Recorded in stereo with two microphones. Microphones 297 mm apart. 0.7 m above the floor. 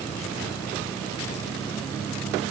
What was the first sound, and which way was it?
Only background noise.